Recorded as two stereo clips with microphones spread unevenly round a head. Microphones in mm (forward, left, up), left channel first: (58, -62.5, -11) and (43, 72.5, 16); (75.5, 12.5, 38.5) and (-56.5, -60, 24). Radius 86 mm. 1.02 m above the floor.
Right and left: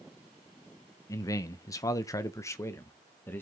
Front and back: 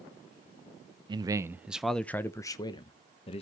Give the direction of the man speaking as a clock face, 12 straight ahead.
4 o'clock.